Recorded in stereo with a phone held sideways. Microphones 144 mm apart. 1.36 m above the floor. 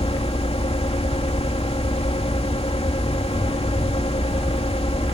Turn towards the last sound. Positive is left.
turn(degrees=45)  # may be behind; listen again after turning